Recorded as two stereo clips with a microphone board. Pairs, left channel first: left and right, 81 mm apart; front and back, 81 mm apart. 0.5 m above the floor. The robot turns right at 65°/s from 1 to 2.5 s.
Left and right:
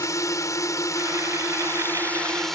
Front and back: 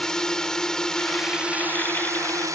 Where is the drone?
80° left; by 2.5 s 175° left.